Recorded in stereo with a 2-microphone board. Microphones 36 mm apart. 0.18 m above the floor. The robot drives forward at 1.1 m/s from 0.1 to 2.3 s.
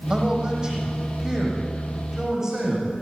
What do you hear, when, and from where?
0.1 s a man speaking: 25° right (ahead or behind), 6.5 m; by 2.9 s 15° right (ahead or behind), 9 m